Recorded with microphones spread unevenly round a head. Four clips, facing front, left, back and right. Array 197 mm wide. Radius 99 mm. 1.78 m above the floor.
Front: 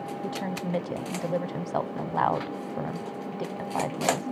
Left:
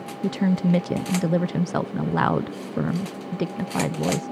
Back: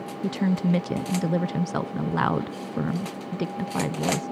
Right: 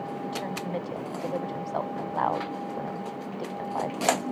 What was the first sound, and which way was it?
A woman speaking, 115° left.